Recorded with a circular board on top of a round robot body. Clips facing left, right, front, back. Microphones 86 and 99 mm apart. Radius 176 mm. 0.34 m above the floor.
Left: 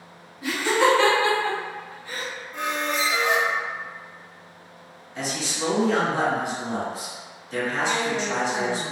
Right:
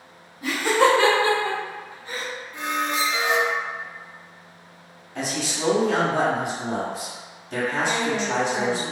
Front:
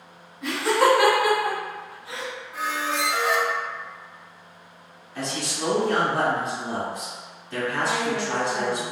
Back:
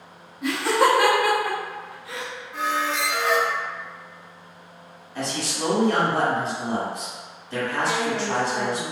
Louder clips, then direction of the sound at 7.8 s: Right 1 dB, back 1 dB; 25° left.